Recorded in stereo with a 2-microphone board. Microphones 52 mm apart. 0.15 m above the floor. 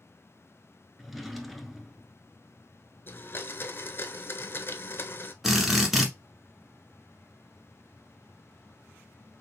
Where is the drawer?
Centre (ahead or behind), 0.7 m.